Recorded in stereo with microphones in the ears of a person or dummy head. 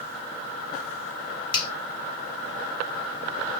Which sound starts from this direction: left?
A finger snap, at 1.5 s.